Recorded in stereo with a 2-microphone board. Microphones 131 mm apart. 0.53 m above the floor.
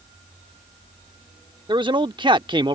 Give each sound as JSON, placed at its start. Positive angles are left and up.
{"t": 1.7, "sound": "a man speaking", "side_deg": -35}